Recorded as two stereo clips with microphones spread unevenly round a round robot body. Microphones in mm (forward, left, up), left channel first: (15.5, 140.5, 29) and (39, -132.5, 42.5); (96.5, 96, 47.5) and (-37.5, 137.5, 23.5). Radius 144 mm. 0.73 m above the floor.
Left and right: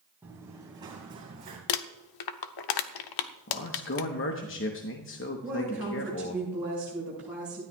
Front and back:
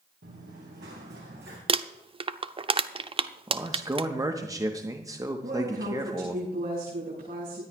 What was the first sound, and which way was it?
Running footsteps, 165° right.